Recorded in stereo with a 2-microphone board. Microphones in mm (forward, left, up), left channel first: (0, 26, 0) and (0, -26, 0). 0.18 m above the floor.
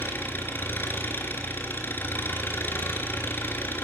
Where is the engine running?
45° left (ahead or behind), 3 m.